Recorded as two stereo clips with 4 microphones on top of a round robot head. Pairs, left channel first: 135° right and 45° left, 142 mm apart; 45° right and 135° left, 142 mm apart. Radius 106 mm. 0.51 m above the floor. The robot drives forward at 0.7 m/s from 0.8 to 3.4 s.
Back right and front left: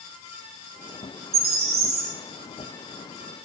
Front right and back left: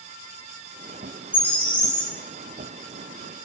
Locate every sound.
1.3 s a bird: 30° left, 5 m; by 2.1 s 35° left, 4.5 m